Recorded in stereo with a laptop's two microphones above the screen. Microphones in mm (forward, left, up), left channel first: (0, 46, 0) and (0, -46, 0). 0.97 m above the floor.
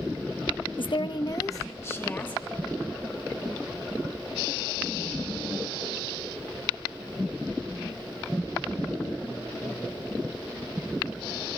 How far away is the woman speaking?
About 0.7 m.